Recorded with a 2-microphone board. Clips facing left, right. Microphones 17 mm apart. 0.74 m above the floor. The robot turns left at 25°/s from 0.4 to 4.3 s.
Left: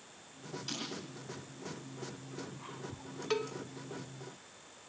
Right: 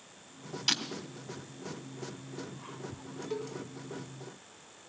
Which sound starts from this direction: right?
Breaking glass, at 0.7 s.